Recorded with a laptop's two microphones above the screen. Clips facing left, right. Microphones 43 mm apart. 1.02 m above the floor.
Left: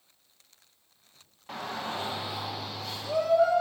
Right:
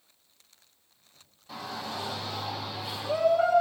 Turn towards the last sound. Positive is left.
turn(degrees=-30)  # may be behind; listen again after turning